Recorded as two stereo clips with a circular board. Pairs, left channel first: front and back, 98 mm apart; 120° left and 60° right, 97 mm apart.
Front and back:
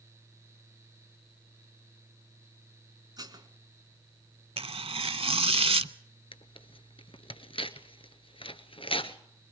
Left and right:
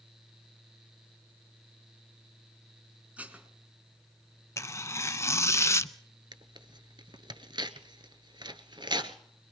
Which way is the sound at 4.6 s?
Straight behind.